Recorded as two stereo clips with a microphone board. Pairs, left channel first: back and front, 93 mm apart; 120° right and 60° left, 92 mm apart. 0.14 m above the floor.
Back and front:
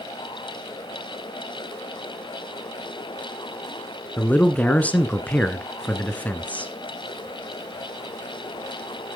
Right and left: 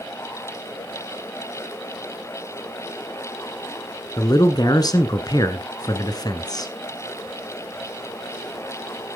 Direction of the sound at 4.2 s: 110° right.